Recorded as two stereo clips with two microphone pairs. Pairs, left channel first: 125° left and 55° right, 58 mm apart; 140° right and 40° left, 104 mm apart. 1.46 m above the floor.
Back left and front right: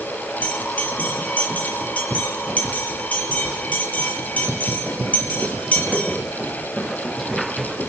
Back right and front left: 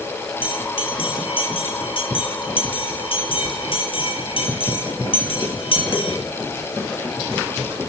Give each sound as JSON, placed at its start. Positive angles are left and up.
{"t": 0.4, "sound": "a bell", "azimuth_deg": -170, "distance_m": 7.0}